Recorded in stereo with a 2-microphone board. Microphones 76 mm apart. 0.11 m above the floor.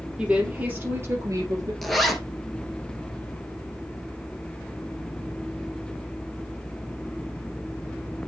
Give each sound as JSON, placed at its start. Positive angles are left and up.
{"t": 0.2, "sound": "a woman speaking", "side_deg": -10, "distance_m": 2.5}
{"t": 1.8, "sound": "a zipper", "side_deg": 0, "distance_m": 1.2}